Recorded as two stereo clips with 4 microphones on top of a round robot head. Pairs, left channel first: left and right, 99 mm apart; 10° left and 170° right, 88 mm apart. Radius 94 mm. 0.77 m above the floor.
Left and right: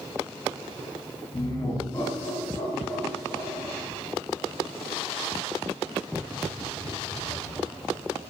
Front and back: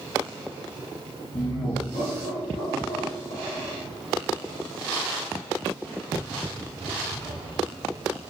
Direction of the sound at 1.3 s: 45° left.